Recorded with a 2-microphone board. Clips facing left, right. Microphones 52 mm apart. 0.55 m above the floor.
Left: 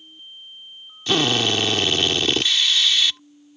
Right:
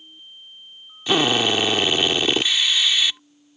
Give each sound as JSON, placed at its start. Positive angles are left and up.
{"t": 1.1, "sound": "a drill", "side_deg": -15}